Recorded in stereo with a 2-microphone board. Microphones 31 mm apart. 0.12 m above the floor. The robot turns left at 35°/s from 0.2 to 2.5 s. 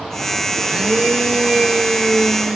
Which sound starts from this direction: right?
A blender, at 0.6 s.